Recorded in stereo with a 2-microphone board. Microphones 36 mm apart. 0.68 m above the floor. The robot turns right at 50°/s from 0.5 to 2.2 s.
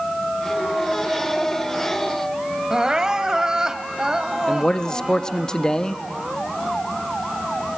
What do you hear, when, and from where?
2.7 s crying: 25° right (ahead or behind), 0.7 m
4.5 s a man speaking: 20° left (ahead or behind), 0.6 m